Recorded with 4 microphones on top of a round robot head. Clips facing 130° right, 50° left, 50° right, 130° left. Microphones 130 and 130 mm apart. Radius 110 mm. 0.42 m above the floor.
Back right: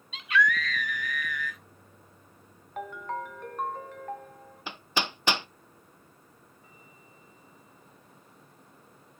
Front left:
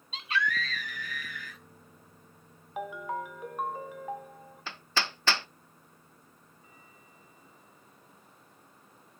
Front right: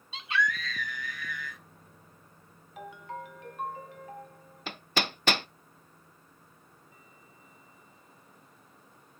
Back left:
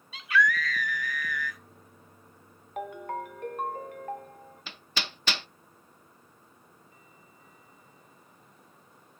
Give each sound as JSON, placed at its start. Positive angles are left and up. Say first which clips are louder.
{"t": 0.1, "sound": "a scream", "louder": "back right 5 dB, back left 4 dB", "azimuth_deg": 5, "distance_m": 1.7}
{"t": 2.8, "sound": "a ringtone", "louder": "even, back left 6 dB", "azimuth_deg": 135, "distance_m": 1.0}
{"t": 4.7, "sound": "hammering", "louder": "back right 2 dB, front right 7 dB", "azimuth_deg": -60, "distance_m": 0.5}